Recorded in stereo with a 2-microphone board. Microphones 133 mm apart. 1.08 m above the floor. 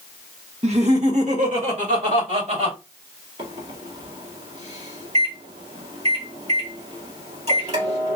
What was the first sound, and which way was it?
Laughter, 55° right (ahead or behind).